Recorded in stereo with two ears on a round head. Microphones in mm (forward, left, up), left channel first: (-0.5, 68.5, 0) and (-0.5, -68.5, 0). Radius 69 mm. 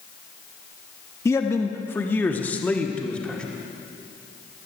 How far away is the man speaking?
About 0.8 m.